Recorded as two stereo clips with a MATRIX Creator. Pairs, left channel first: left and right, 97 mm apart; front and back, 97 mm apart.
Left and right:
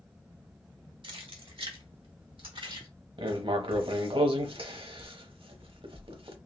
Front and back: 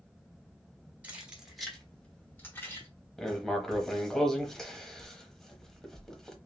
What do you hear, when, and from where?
1.0 s keys jangling: 110° right, 1.2 m; by 2.9 s 60° right, 1.6 m
3.2 s writing: 85° right, 0.8 m